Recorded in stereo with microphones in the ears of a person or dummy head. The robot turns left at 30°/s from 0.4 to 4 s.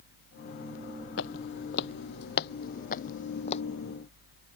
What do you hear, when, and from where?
1.2 s footsteps: 65° left (ahead or behind); by 3.6 s 30° left (ahead or behind)